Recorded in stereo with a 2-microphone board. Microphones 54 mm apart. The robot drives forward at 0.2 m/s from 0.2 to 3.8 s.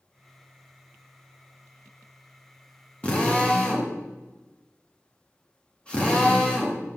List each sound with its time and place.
3.0 s a drill: 20° left (ahead or behind), 1.1 m